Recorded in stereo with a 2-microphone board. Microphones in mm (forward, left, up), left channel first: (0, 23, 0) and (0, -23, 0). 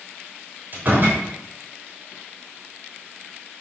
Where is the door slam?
45° right (ahead or behind), 4 m.